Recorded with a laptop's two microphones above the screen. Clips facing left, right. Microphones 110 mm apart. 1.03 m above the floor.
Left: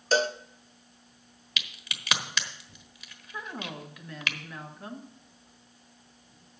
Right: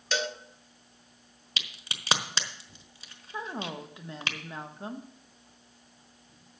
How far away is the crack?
About 1.1 m.